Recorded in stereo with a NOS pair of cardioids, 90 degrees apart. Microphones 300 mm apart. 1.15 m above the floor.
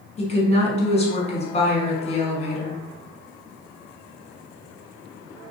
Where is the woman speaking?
20° left, 1.1 m.